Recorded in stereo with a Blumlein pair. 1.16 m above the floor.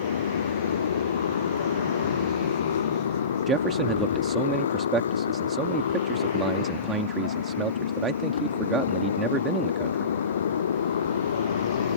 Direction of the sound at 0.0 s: 65° left.